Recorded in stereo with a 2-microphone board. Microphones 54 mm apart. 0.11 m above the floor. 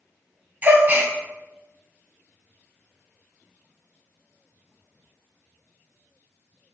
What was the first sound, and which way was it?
A gasp, 35° right (ahead or behind).